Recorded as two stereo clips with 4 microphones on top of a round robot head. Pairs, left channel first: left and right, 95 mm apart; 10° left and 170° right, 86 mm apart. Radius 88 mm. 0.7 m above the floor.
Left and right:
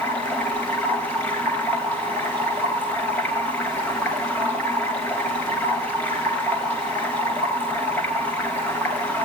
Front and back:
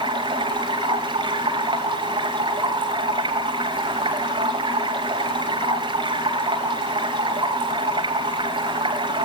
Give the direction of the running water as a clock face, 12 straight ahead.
6 o'clock.